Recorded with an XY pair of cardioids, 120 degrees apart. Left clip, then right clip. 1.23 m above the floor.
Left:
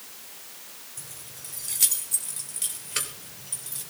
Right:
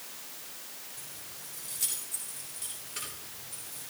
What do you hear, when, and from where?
1.0 s keys jangling: 50° left, 4 m; by 3.9 s 75° left, 3.5 m